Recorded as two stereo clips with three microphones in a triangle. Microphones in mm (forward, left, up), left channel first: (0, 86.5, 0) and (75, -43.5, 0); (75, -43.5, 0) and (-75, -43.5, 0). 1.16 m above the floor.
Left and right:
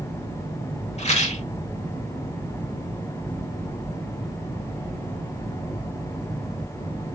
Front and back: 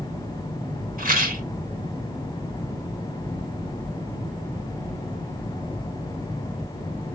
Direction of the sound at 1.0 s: 160° left.